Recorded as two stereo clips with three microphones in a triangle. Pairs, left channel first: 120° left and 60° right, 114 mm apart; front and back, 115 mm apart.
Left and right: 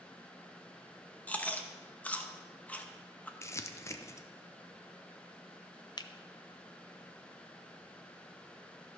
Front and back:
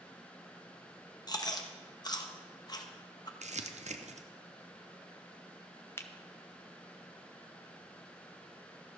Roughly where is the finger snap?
Ahead left.